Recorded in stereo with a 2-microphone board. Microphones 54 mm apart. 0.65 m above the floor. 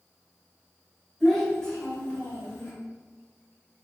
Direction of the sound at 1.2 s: Centre (ahead or behind).